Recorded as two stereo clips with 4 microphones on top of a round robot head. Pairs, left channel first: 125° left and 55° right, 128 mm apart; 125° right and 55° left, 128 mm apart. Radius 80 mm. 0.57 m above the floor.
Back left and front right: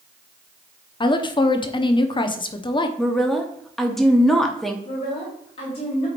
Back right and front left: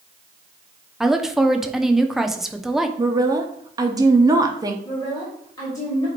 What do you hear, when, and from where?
1.0 s a woman speaking: 140° left, 0.8 m
3.0 s a woman speaking: 40° left, 0.9 m
4.8 s a woman speaking: 170° left, 2.5 m